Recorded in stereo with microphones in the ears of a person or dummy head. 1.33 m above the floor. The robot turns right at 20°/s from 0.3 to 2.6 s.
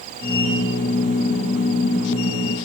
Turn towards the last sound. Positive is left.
No sound to turn to.